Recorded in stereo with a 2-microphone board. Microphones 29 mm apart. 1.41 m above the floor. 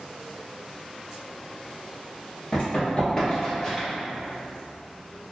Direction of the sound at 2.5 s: 40° left (ahead or behind).